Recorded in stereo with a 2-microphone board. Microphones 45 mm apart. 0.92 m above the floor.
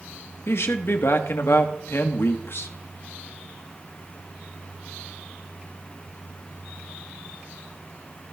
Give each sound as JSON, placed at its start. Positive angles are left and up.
{"t": 0.5, "sound": "a man speaking", "side_deg": 65, "distance_m": 1.2}